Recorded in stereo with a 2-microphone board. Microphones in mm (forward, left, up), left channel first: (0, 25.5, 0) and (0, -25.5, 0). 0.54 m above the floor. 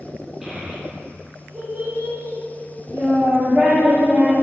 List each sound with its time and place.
0.4 s a child speaking: 10° right (ahead or behind), 0.8 m; by 4.3 s 20° right (ahead or behind), 1.7 m